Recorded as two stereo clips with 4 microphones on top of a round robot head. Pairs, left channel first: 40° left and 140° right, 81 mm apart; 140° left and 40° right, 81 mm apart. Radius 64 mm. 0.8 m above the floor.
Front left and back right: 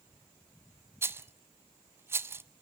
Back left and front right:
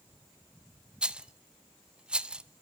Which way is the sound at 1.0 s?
110° right.